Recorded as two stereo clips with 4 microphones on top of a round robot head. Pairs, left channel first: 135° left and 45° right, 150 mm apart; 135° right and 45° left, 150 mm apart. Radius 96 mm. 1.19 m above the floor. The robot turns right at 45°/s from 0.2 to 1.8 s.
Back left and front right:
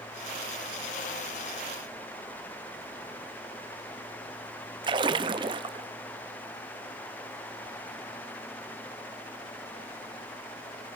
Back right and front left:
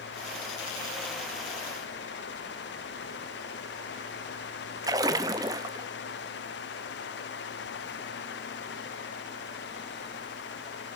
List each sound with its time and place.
4.8 s a splash: 5° right, 0.5 m